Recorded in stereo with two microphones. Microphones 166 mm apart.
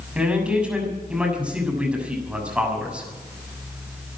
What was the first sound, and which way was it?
A man speaking, 5° right (ahead or behind).